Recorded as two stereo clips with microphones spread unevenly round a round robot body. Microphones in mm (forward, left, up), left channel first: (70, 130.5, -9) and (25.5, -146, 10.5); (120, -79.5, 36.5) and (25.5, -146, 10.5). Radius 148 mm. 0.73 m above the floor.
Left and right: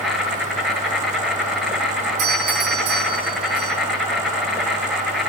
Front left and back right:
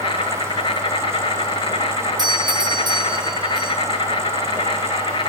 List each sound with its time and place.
0.0 s an insect: 10° right, 9 m
2.2 s a doorbell: 105° right, 4 m